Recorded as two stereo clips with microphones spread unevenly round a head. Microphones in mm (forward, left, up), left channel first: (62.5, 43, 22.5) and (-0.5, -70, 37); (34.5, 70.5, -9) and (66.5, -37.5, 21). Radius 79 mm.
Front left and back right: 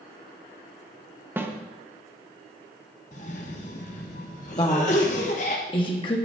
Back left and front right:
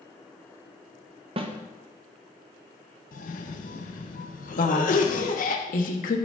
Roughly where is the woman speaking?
Behind left.